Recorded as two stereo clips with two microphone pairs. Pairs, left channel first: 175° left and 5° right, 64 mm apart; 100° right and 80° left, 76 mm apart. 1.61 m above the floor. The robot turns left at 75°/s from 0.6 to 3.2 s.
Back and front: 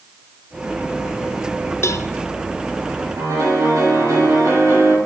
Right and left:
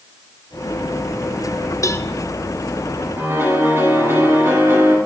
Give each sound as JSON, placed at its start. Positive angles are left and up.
{"t": 1.8, "sound": "a cowbell", "azimuth_deg": -145, "distance_m": 0.6}
{"t": 3.2, "sound": "a piano", "azimuth_deg": 25, "distance_m": 7.0}